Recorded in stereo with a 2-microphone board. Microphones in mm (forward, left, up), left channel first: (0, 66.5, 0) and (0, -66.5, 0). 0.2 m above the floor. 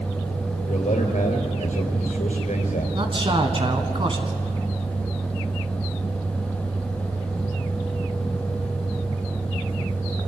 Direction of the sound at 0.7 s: 70° left (ahead or behind).